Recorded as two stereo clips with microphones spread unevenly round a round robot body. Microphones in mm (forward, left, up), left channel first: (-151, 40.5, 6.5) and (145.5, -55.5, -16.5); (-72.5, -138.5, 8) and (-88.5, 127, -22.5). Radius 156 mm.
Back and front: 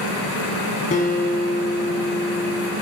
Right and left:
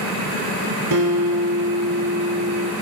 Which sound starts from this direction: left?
A guitar, at 0.9 s.